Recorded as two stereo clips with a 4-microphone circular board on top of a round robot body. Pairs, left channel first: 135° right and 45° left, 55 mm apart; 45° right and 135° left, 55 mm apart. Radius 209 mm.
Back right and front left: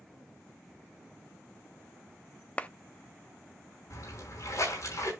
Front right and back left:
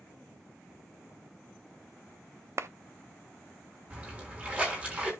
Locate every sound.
2.6 s a clap: 165° left, 0.9 m
3.9 s a splash: 160° right, 5.5 m